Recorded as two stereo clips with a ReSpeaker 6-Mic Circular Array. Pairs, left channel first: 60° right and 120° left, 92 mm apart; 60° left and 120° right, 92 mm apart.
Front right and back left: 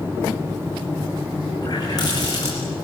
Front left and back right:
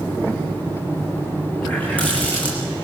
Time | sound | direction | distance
1.6 | a running tap | 15° right | 6 m